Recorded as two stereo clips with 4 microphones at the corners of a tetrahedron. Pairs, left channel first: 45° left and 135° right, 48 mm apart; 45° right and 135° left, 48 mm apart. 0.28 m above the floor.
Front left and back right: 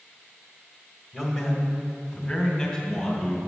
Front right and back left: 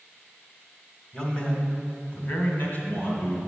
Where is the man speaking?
75° right, 1.6 m; by 3.4 s 25° right, 3 m.